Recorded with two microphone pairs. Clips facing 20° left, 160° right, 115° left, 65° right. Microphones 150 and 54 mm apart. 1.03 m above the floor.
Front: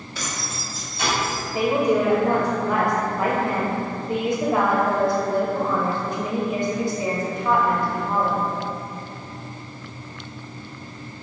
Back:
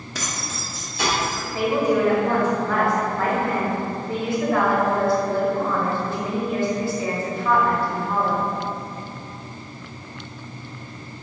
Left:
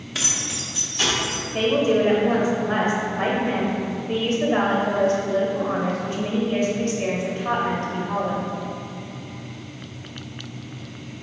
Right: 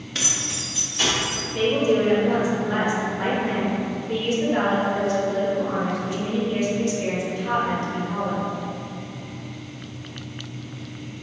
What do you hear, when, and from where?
0.1 s keys jangling: 160° right, 0.8 m; by 1.4 s 145° right, 1.9 m
1.5 s a woman speaking: 85° left, 1.0 m